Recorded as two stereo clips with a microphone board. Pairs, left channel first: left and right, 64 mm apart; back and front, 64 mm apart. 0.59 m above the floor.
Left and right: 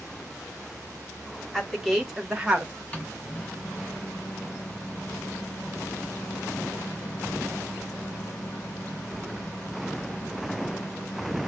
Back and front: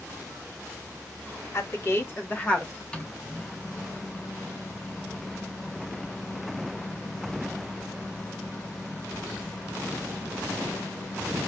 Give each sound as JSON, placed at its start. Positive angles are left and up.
{"t": 1.5, "sound": "a woman speaking", "azimuth_deg": 180, "distance_m": 1.5}
{"t": 2.9, "sound": "a microwave", "azimuth_deg": 130, "distance_m": 0.9}